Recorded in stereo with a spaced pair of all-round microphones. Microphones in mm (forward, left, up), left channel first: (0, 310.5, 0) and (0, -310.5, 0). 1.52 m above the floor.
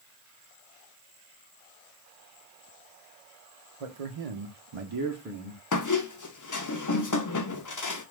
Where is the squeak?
35° left (ahead or behind), 0.5 m.